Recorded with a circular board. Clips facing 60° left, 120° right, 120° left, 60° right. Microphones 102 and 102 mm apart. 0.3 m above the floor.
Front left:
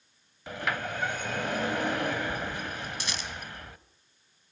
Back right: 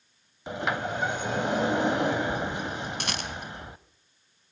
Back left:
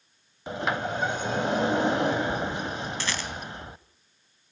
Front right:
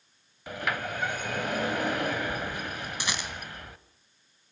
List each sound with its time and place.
0.5 s a sliding door: straight behind, 0.9 m
3.0 s a rattle: 130° right, 2 m